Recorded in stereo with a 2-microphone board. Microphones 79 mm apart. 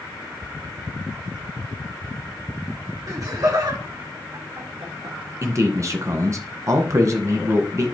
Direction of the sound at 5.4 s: 40° right (ahead or behind).